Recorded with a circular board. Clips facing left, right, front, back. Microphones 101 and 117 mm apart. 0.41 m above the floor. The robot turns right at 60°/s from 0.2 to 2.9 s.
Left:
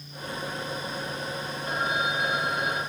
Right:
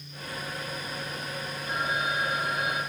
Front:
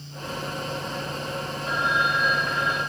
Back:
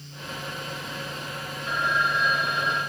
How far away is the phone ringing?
About 5 m.